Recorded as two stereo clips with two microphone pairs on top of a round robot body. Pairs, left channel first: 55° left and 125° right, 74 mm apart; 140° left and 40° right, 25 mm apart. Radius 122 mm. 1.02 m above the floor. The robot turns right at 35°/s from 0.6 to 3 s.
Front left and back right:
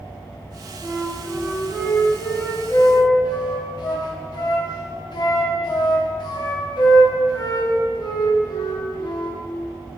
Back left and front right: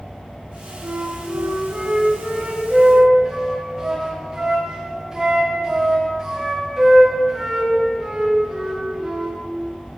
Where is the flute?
45° right, 1.1 m; by 9.4 s 30° left, 1.1 m.